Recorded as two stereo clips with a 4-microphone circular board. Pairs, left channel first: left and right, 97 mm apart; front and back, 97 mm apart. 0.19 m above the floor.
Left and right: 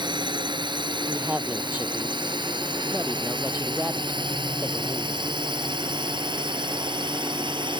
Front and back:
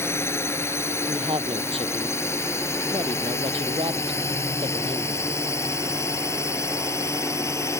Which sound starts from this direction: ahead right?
A drone, at 0.0 s.